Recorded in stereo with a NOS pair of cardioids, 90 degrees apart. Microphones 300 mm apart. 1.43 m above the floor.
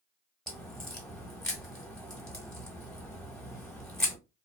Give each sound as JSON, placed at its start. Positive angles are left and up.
{"t": 0.5, "sound": "a crack", "azimuth_deg": 0, "distance_m": 1.2}